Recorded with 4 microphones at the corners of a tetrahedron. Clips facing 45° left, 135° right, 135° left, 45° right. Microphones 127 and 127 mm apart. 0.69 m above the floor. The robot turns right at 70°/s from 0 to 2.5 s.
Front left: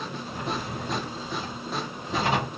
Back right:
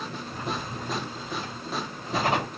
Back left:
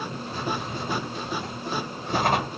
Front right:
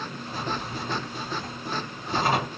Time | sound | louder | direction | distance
0.2 | a drawer | front left 2 dB, back left 1 dB | 35° left | 1.7 m